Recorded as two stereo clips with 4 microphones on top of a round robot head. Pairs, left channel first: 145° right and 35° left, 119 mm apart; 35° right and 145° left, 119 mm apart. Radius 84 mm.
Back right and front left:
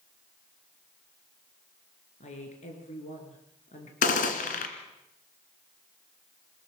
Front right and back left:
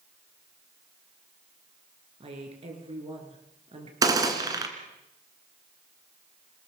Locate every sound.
2.2 s a woman speaking: 175° right, 6 m
4.0 s a gunshot: 155° right, 3 m